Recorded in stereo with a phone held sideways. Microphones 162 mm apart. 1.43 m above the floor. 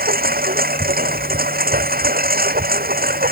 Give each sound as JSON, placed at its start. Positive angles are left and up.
{"t": 0.0, "sound": "a lawn mower", "side_deg": -70}